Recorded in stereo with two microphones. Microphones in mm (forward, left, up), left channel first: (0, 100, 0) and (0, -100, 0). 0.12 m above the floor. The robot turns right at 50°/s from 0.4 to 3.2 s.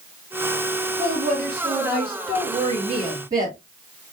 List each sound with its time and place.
1.0 s a woman speaking: 130° right, 2.5 m; by 3.6 s 20° right, 2.5 m